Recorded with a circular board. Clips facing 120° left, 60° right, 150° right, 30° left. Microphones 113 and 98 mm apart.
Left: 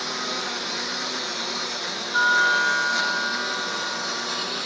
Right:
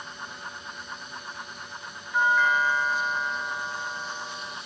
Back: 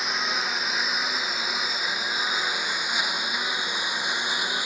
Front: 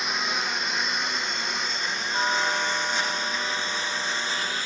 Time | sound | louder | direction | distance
0.0 | a lawn mower | left 10 dB, even | 120° left | ?
2.1 | a doorbell | left 1 dB, front 8 dB | 45° left | ?